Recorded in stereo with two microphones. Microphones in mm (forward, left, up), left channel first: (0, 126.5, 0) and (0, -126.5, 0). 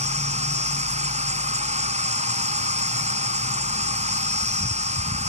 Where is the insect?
25° right (ahead or behind).